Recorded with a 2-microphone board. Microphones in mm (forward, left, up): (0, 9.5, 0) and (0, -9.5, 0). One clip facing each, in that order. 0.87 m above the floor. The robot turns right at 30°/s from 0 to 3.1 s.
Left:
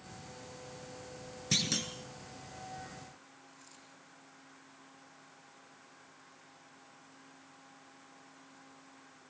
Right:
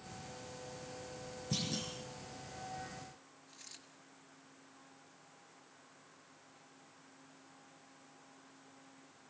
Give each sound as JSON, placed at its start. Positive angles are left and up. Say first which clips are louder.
{"t": 1.5, "sound": "a clunk", "louder": "left 7 dB", "side_deg": 75, "distance_m": 3.5}
{"t": 3.5, "sound": "a dropped coin", "louder": "right 1 dB", "side_deg": -45, "distance_m": 5.0}